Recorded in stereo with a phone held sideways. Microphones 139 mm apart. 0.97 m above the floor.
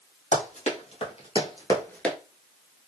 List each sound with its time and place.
0.3 s running footsteps: 55° left (ahead or behind), 2 m; by 2.2 s centre (ahead or behind), 0.9 m